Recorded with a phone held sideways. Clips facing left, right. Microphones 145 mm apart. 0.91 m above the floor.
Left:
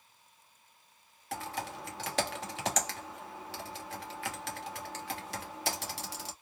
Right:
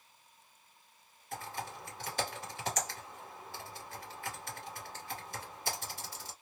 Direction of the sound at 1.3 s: 70° left (ahead or behind).